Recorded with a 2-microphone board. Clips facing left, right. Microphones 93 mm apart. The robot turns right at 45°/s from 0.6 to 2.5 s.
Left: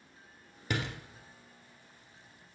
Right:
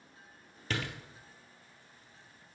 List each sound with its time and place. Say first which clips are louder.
0.7 s a door slam: left 2 dB; 15° left (ahead or behind), 1.8 m; by 1.0 s 25° left (ahead or behind), 1.8 m